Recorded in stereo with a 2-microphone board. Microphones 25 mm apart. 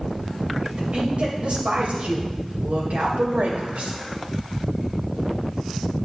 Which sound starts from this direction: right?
A woman speaking, at 0.6 s.